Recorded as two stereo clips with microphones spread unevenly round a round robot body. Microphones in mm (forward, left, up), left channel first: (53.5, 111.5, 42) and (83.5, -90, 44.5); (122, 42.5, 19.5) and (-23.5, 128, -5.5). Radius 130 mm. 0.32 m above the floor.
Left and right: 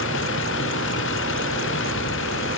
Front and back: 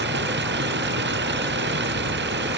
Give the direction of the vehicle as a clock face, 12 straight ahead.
7 o'clock.